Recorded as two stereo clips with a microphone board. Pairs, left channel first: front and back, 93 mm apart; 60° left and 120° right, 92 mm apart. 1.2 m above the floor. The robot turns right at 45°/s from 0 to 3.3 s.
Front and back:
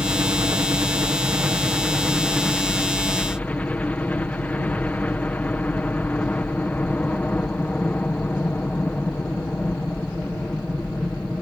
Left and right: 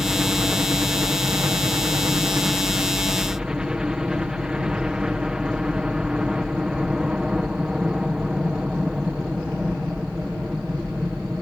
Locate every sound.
0.0 s a helicopter: 160° left; by 11.4 s 50° right